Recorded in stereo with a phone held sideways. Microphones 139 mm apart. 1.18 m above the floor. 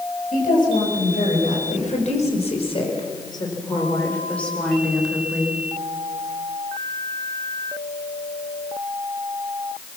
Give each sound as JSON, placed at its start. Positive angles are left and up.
{"t": 0.3, "sound": "a woman speaking", "side_deg": 75, "distance_m": 5.5}